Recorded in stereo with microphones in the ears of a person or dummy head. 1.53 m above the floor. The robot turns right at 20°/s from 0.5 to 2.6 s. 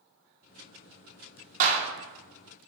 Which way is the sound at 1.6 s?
45° right (ahead or behind).